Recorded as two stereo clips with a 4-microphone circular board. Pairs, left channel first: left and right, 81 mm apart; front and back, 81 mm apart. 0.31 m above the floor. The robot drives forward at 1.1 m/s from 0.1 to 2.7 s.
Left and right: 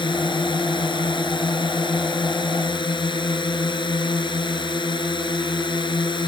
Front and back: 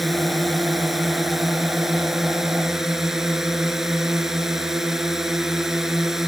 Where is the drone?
90° left; by 6.3 s 95° left.